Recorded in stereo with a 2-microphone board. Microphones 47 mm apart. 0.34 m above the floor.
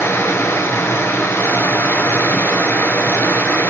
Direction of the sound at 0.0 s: 60° left (ahead or behind).